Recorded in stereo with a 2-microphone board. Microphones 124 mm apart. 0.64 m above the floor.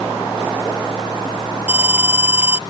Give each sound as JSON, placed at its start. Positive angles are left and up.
{"t": 1.7, "sound": "an alarm", "side_deg": -15}